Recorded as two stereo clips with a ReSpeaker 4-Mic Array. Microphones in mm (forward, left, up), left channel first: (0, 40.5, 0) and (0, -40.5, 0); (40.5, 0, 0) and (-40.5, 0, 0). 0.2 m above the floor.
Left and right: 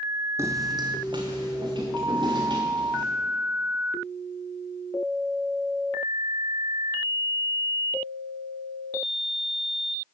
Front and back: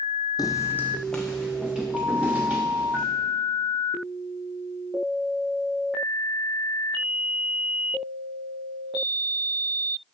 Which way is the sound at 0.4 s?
35° right.